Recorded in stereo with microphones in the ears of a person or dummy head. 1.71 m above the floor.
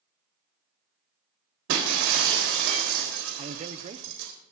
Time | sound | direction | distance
1.7 | breaking glass | 70° right (ahead or behind) | 4 m
3.4 | a man speaking | 40° right (ahead or behind) | 0.9 m